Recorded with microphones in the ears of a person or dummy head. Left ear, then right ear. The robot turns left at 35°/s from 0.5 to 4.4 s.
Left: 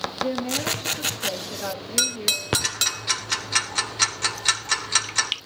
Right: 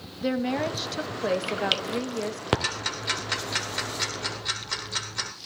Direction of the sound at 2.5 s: 5° right (ahead or behind).